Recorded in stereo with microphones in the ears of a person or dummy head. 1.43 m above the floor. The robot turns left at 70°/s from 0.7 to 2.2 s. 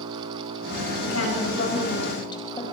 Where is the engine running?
105° right, 5 m; by 2.7 s 150° left, 5 m.